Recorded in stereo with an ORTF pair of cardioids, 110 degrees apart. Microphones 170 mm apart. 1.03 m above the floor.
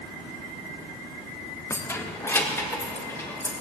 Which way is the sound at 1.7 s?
15° left.